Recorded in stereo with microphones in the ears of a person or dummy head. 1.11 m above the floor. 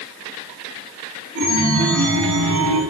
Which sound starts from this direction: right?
A chime, at 1.4 s.